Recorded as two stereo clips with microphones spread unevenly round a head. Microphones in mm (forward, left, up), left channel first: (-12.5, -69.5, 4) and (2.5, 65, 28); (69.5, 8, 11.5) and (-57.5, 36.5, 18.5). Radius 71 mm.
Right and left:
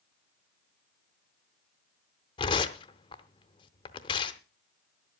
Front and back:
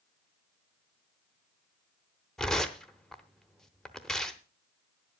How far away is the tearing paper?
About 0.7 m.